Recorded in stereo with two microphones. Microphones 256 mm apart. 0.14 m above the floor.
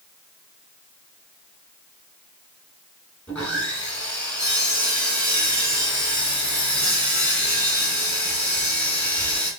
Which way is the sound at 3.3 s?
5° left (ahead or behind).